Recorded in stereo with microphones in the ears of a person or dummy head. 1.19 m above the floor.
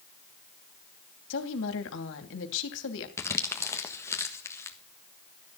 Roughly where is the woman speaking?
Left.